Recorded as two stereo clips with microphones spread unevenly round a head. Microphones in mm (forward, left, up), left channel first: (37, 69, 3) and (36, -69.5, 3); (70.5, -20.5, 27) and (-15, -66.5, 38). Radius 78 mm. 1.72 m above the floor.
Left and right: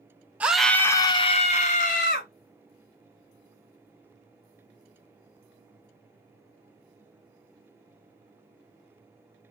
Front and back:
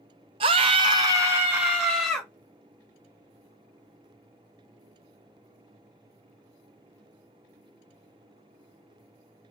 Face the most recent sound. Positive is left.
turn(degrees=115)